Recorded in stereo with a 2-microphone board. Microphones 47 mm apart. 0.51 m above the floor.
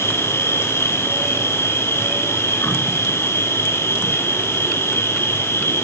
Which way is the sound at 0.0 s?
70° left (ahead or behind).